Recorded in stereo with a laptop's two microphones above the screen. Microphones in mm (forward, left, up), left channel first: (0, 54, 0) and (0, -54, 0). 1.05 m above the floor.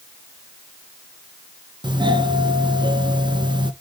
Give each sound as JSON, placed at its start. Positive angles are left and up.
{"t": 1.8, "sound": "a doorbell", "side_deg": -40, "distance_m": 1.0}